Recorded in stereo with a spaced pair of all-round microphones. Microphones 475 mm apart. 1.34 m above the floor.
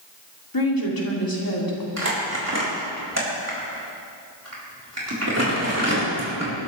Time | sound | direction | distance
0.5 | a woman speaking | 45° left (ahead or behind) | 3 m
2.0 | crumpling | 30° right (ahead or behind) | 4 m